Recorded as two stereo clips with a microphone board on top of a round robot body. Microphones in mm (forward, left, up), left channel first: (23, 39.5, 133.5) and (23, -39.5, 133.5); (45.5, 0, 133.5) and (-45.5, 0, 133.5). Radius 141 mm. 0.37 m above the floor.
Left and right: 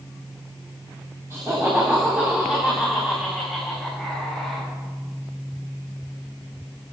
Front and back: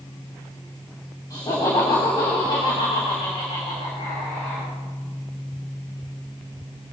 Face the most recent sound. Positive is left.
turn(degrees=5)